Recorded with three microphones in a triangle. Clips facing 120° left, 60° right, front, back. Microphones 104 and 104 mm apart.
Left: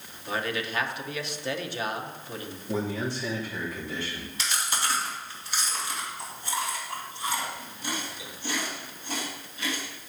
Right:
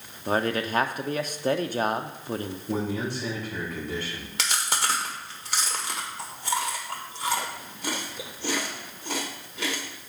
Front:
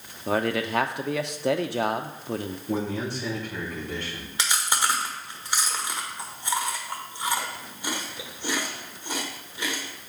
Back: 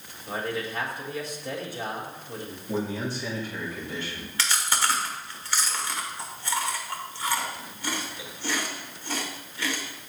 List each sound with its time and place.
0.3 s a man speaking: 10° right, 0.7 m
2.7 s a man speaking: 30° right, 4.5 m
4.4 s chewing: 70° right, 1.4 m